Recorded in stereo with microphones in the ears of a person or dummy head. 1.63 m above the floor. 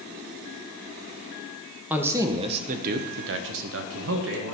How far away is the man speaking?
About 1.3 m.